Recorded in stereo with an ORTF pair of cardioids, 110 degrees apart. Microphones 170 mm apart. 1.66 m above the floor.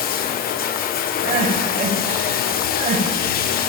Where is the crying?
45° right, 5.5 m.